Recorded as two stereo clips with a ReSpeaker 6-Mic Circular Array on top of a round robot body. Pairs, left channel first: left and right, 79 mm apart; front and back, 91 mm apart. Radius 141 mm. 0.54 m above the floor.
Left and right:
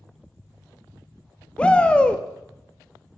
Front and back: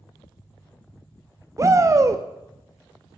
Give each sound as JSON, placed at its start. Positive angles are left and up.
{"t": 1.6, "sound": "a shout", "azimuth_deg": 155, "distance_m": 0.7}